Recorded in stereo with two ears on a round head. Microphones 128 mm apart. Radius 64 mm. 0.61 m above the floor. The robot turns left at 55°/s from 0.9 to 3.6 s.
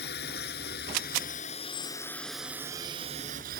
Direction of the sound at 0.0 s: 80° left.